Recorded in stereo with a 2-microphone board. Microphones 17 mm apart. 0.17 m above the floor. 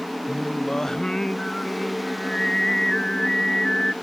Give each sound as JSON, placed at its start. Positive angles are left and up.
{"t": 0.3, "sound": "singing", "side_deg": 25}